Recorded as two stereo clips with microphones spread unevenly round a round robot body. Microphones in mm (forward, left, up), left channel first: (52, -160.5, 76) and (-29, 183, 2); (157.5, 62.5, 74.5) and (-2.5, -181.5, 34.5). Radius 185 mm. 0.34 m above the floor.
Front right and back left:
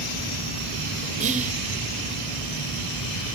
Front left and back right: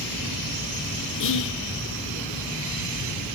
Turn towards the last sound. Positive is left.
turn(degrees=75)